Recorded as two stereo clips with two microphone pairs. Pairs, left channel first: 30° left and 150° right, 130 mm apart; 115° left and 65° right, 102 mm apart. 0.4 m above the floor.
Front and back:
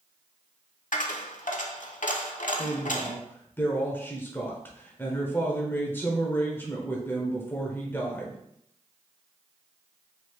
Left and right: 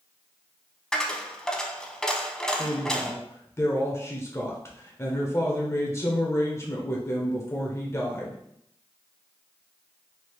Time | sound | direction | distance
0.9 | a dropped coin | 30° left | 0.6 m
2.6 | a woman speaking | 85° left | 1.0 m